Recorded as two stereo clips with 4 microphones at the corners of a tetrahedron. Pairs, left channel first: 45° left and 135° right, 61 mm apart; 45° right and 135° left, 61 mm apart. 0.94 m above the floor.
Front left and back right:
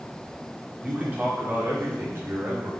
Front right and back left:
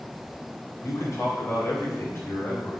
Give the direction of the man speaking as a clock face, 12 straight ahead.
2 o'clock.